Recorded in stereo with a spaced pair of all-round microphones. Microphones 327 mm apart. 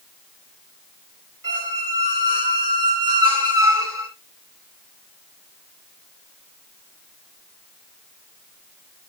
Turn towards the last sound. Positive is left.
turn(degrees=-80)